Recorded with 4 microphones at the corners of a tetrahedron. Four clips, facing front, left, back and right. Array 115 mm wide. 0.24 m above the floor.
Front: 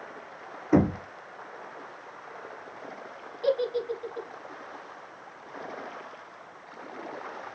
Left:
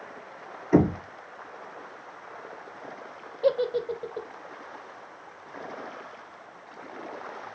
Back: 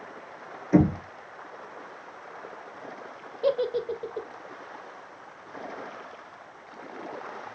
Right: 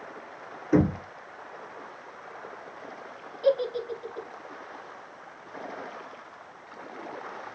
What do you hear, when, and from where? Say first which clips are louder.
0.7 s knocking: left 2 dB, back 1 dB; straight ahead, 1.8 m
3.4 s a giggle: left 1 dB, back 1 dB; 135° left, 0.6 m